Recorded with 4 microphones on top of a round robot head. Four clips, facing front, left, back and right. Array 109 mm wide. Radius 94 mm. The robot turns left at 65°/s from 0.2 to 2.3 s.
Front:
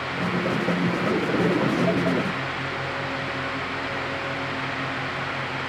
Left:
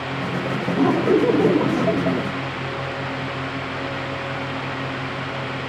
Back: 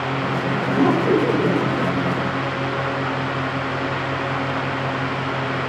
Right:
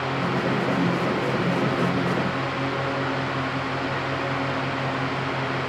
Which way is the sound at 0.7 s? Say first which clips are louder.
Left 6 dB, back 7 dB; 155° left.